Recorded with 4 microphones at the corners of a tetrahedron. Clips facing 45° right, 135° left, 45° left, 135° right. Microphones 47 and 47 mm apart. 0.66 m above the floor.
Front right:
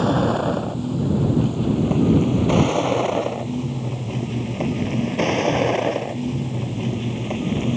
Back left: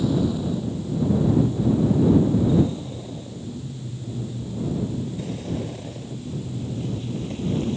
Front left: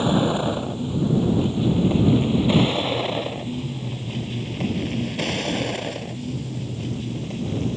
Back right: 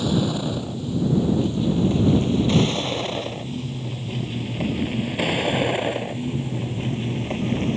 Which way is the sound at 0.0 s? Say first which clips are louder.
Front right 4 dB, front left 3 dB; 15° right.